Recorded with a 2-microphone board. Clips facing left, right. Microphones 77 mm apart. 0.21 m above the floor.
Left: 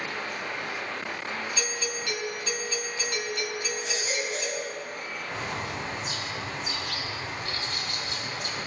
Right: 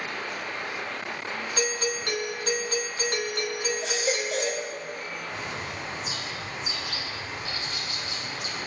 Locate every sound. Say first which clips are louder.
1.6 s a doorbell: right 4 dB; 50° right (ahead or behind), 2.5 m
3.8 s a baby crying: right 3 dB; 70° right (ahead or behind), 5.5 m
5.3 s a bird: left 4 dB; 50° left (ahead or behind), 5 m